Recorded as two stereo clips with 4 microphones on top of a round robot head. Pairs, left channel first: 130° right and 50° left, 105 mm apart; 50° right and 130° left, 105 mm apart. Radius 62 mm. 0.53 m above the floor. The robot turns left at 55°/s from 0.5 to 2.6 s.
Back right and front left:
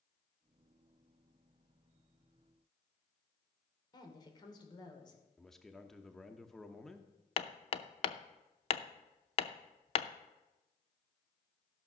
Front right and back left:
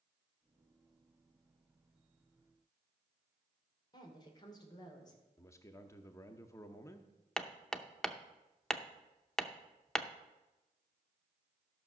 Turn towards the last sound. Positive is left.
turn(degrees=-130)